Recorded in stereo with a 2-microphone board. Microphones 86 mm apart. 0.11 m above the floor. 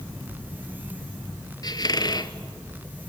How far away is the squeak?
About 0.9 m.